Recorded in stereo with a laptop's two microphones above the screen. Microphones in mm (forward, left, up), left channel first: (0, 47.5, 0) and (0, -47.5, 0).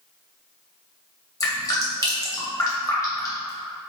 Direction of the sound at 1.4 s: 35° left (ahead or behind).